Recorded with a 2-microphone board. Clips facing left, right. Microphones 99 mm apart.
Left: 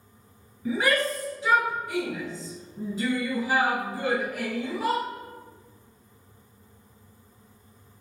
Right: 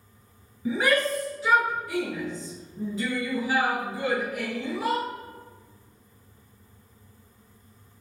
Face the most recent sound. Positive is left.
turn(degrees=35)  # may be behind; listen again after turning